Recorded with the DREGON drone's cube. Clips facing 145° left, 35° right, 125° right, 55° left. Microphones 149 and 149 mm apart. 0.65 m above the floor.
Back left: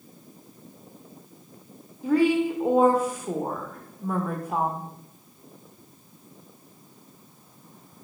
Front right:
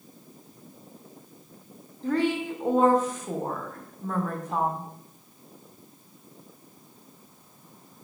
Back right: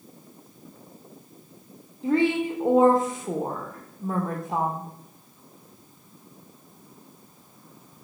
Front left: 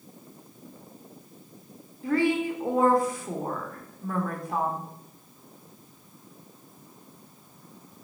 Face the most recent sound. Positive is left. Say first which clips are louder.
# back left 5 dB, back right 2 dB
turn(degrees=-150)